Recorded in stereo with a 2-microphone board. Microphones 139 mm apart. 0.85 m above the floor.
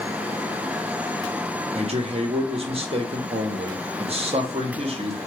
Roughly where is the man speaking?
Right.